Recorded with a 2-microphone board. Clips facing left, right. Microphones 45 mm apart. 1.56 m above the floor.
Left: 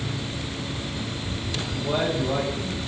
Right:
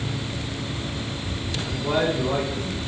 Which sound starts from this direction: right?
A man speaking, at 1.7 s.